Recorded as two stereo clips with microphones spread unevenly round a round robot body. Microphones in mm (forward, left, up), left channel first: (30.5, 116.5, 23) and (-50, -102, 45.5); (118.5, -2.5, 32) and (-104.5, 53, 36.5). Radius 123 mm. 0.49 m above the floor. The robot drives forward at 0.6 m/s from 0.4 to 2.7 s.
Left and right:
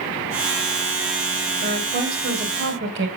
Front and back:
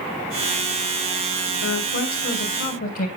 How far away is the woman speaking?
About 3 m.